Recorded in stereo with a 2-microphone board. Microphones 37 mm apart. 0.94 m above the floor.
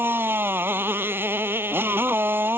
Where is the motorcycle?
70° right (ahead or behind).